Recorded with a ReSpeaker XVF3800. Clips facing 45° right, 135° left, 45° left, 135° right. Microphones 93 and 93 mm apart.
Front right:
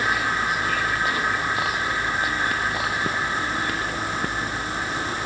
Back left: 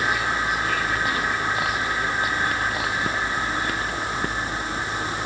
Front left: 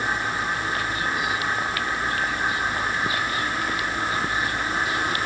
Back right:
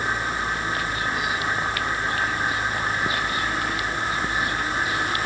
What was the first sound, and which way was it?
Only background noise.